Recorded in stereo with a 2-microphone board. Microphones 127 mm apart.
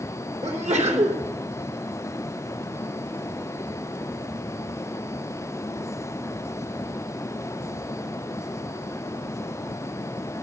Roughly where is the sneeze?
Right.